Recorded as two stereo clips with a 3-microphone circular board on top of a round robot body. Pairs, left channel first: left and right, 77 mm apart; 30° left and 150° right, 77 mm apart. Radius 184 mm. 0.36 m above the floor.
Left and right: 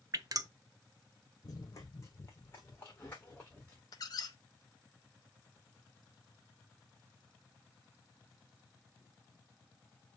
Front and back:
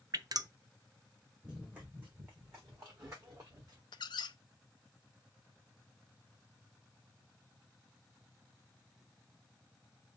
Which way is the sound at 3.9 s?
50° left.